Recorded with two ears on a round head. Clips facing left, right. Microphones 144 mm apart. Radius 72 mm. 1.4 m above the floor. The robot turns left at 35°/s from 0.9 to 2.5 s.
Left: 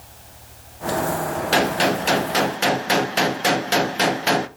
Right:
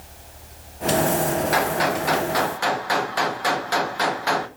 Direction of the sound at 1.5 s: 95° left.